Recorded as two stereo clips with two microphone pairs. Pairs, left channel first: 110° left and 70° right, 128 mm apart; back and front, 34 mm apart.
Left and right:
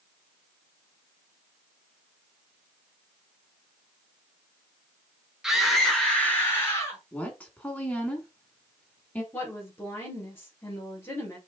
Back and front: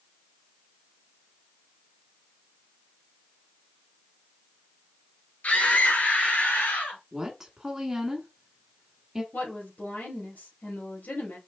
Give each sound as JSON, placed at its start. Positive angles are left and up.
{"t": 5.4, "sound": "a scream", "azimuth_deg": -150, "distance_m": 2.5}
{"t": 7.1, "sound": "a woman speaking", "azimuth_deg": 50, "distance_m": 1.4}
{"t": 9.3, "sound": "a woman speaking", "azimuth_deg": -175, "distance_m": 3.0}